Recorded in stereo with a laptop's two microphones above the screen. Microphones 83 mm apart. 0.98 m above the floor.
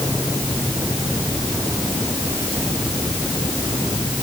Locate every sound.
Only background noise.